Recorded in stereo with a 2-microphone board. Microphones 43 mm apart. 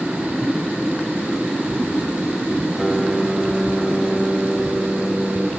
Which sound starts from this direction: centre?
A piano, at 2.8 s.